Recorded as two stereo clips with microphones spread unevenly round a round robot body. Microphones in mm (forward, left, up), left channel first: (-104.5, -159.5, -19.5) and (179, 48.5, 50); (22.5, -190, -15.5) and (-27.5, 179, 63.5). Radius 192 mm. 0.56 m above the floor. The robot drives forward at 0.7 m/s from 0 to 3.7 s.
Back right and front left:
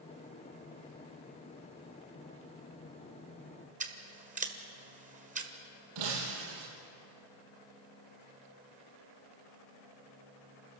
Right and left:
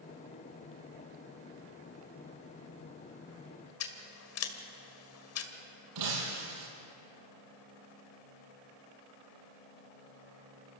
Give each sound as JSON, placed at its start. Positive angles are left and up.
{"t": 3.8, "sound": "scissors", "azimuth_deg": -35, "distance_m": 1.9}
{"t": 6.0, "sound": "breaking glass", "azimuth_deg": 70, "distance_m": 5.5}